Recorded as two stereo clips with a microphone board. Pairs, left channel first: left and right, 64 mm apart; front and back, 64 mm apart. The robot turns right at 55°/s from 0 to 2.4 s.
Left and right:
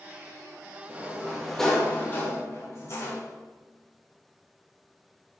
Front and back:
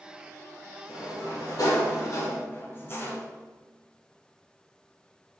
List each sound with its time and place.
0.9 s a sliding door: 35° right, 1.4 m; by 3.2 s 50° left, 1.4 m